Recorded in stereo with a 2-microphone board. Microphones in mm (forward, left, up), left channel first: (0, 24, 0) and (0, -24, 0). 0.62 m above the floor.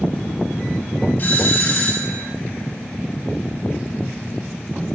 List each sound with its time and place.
1.2 s a doorbell: 45° left (ahead or behind), 3.5 m